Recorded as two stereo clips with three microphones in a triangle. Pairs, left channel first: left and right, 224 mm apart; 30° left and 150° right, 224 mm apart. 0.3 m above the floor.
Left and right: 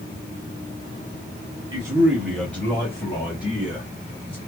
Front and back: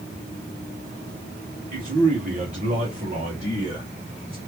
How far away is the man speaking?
About 1.0 m.